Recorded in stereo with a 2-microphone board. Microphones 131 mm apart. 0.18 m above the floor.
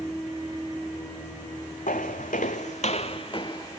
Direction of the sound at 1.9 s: 80° left.